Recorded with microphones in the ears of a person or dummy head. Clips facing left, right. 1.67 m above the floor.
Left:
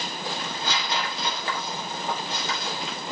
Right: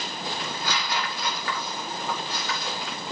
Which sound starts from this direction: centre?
Tearing paper, at 0.4 s.